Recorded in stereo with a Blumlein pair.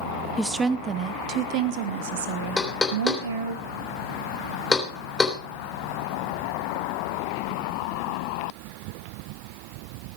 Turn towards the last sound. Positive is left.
turn(degrees=10)